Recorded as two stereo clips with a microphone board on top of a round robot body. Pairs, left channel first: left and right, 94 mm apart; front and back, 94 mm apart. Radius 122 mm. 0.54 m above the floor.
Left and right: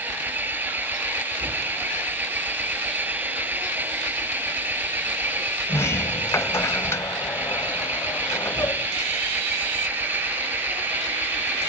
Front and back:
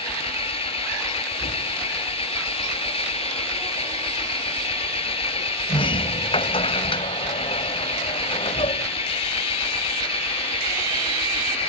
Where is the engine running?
20° right.